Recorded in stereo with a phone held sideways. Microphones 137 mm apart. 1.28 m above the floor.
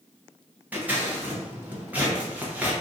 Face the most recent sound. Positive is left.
turn(degrees=-15)  # may be behind; listen again after turning